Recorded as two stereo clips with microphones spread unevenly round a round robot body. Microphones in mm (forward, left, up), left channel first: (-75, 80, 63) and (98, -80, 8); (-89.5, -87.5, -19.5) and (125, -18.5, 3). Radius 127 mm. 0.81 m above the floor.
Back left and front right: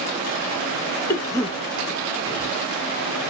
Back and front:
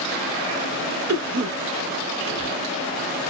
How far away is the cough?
About 1.1 m.